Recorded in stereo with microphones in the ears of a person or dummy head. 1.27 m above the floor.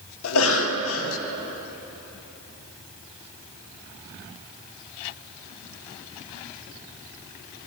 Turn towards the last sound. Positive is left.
turn(degrees=70)  # may be behind; listen again after turning